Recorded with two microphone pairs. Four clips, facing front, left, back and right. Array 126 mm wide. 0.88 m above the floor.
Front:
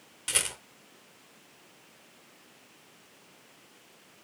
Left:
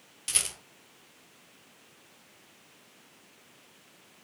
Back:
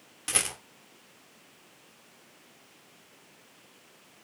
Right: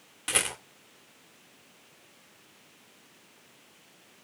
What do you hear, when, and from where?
0.3 s a rattle: 115° right, 2.5 m